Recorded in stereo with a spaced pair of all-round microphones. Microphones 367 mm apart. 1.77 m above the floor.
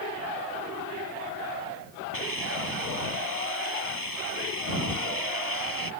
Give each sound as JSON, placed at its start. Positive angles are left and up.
{"t": 2.1, "sound": "a hiss", "side_deg": -65}